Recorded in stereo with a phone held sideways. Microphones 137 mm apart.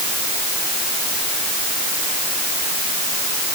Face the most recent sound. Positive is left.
No sound to turn to.